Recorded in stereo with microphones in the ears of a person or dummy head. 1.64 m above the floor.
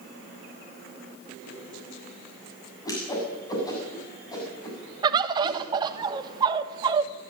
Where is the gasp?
No gasp in this recording.